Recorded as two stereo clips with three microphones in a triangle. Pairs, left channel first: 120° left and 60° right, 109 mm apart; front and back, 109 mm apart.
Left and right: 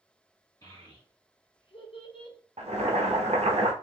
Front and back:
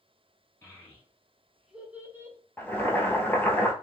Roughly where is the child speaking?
Ahead left.